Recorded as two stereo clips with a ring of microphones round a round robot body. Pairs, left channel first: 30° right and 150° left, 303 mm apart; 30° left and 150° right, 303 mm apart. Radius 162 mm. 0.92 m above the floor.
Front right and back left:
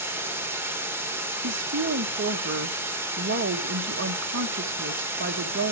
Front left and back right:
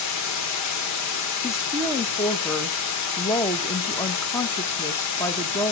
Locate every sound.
0.0 s running water: 65° left, 1.7 m
1.4 s a woman speaking: 110° left, 1.4 m